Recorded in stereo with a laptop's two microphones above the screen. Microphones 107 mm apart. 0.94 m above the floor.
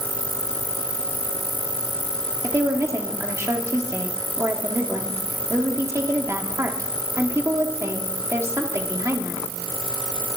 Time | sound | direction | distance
2.4 | a woman speaking | 30° right (ahead or behind) | 1.6 m